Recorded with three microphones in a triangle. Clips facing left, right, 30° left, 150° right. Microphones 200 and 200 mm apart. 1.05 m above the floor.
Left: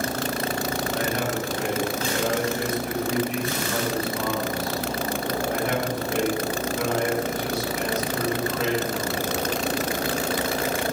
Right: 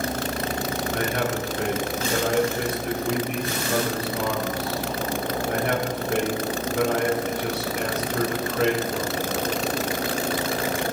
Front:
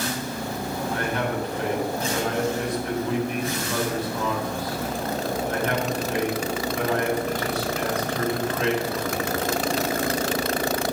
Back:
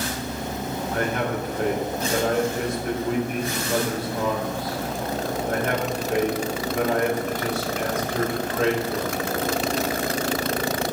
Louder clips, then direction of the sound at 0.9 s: Right 2 dB, back 2 dB; 110° right.